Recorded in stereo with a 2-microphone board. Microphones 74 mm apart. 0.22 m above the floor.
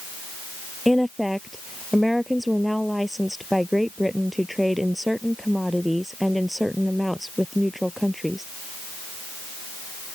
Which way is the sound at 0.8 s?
Centre (ahead or behind).